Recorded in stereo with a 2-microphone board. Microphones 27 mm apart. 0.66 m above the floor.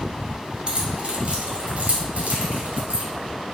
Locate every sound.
0.7 s keys jangling: 40° right (ahead or behind), 1.8 m; by 3.0 s 70° right (ahead or behind), 3 m